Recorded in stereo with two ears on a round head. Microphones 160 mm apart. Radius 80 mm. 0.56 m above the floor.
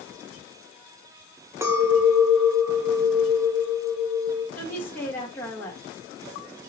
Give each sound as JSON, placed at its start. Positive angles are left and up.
{"t": 1.6, "sound": "a clink", "side_deg": -15, "distance_m": 0.9}
{"t": 4.5, "sound": "a woman speaking", "side_deg": 15, "distance_m": 1.5}